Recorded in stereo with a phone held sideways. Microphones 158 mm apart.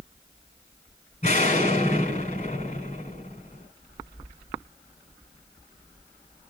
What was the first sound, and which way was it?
An explosion, 50° left (ahead or behind).